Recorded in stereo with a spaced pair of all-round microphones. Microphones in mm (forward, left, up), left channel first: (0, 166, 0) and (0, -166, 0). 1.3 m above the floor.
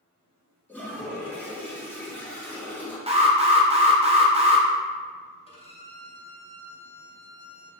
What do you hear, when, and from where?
0.7 s a toilet flushing: 5° left (ahead or behind), 1.2 m
3.1 s an alarm: 20° right (ahead or behind), 0.6 m
5.5 s a violin: 15° left (ahead or behind), 0.8 m